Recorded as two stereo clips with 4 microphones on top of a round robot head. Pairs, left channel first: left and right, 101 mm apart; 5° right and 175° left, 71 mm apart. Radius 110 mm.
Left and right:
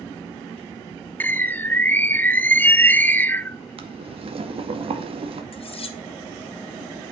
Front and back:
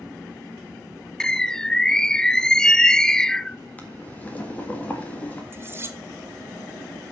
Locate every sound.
1.2 s a bird: 60° left, 0.6 m
3.8 s boiling: 75° right, 1.9 m
5.5 s cutlery clinking: 115° left, 1.4 m